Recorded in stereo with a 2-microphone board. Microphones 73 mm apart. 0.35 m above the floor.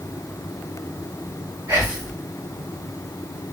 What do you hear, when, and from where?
1.7 s whispering: 40° right (ahead or behind), 1.7 m